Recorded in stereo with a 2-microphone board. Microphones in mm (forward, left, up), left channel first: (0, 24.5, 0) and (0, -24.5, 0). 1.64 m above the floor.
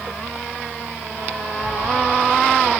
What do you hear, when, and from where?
1.6 s a cat meowing: 15° right (ahead or behind), 1.6 m; by 2.8 s 10° right (ahead or behind), 1.5 m